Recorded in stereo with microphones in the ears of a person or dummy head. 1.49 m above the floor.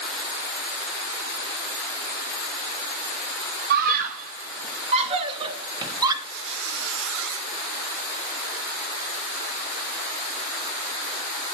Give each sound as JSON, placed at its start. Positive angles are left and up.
{"t": 3.7, "sound": "a scream", "side_deg": -55, "distance_m": 1.8}
{"t": 6.2, "sound": "a squeak", "side_deg": -70, "distance_m": 1.5}